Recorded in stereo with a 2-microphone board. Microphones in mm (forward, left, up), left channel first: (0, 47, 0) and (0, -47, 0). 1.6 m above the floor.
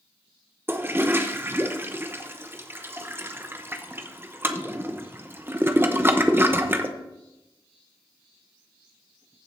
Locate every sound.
0.7 s a toilet flushing: 25° right (ahead or behind), 0.7 m